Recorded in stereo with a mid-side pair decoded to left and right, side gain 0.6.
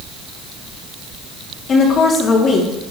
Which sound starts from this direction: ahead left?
A woman speaking, at 1.7 s.